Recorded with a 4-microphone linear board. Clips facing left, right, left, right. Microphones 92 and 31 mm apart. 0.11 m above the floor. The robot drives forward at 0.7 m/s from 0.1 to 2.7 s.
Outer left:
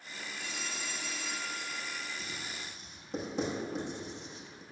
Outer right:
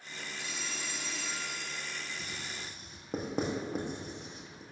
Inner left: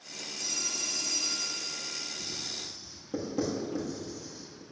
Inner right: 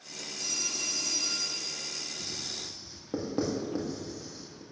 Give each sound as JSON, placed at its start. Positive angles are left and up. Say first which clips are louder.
{"t": 0.4, "sound": "a phone ringing", "louder": "outer left 1 dB, inner right 1 dB", "side_deg": -15, "distance_m": 2.0}
{"t": 2.2, "sound": "writing", "louder": "even, even", "side_deg": -55, "distance_m": 1.7}